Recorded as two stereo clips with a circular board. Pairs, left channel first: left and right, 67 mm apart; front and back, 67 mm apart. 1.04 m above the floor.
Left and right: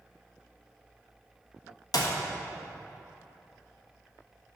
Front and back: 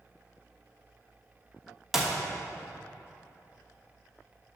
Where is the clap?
95° left, 1.1 m.